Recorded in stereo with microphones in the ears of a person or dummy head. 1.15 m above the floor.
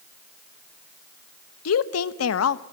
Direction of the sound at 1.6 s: 90° left.